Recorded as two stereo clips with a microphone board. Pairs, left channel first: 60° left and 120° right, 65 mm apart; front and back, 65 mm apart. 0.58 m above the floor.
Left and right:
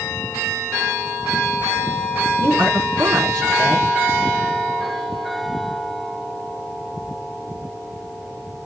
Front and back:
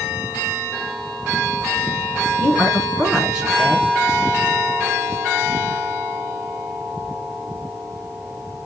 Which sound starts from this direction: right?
A woman speaking, at 2.4 s.